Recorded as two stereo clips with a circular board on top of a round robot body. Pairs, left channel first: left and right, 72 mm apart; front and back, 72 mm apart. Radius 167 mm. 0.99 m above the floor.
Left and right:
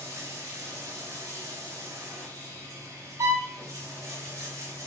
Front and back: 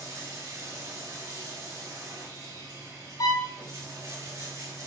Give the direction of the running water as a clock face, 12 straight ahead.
5 o'clock.